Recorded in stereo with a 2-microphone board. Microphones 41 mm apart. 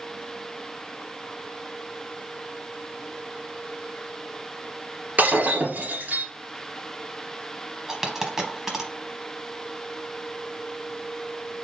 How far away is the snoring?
I don't hear snoring.